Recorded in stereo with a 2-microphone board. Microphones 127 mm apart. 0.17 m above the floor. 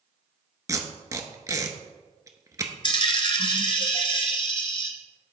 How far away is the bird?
I don't hear a bird.